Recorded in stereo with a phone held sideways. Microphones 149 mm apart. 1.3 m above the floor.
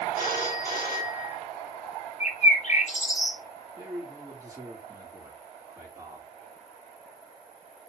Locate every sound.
0.1 s a phone ringing: 70° right (ahead or behind), 2.5 m
2.2 s a bird: 55° left (ahead or behind), 1.8 m
3.8 s a man speaking: 20° right (ahead or behind), 3.5 m